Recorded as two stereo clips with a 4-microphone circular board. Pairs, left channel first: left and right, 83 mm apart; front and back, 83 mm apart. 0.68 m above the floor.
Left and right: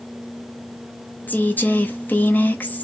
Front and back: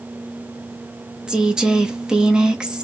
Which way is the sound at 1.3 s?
110° left.